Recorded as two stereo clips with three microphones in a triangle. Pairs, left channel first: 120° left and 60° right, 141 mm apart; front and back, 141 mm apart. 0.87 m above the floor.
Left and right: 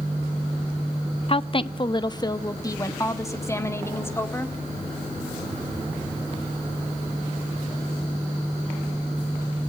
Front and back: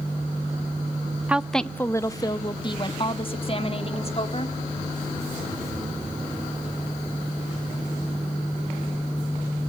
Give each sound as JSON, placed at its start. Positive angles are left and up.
{"t": 1.3, "sound": "a woman speaking", "azimuth_deg": 105, "distance_m": 0.6}